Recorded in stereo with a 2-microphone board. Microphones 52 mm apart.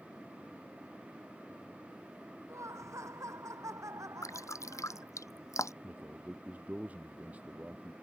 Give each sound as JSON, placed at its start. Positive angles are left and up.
{"t": 2.5, "sound": "laughter", "side_deg": -75}
{"t": 4.2, "sound": "dripping", "side_deg": 80}
{"t": 5.8, "sound": "a man speaking", "side_deg": -30}